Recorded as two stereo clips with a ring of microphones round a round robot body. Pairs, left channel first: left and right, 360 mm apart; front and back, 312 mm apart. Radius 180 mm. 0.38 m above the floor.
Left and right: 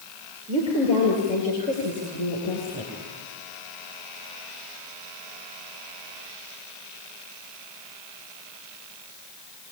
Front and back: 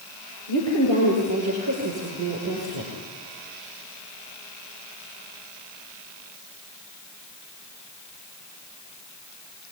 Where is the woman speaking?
165° left, 8.5 m; by 2.9 s 160° left, 7.5 m.